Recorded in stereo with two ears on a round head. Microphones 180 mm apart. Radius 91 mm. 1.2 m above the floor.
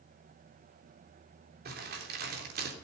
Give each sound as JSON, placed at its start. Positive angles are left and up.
{"t": 1.6, "sound": "crumpling", "side_deg": -50, "distance_m": 3.0}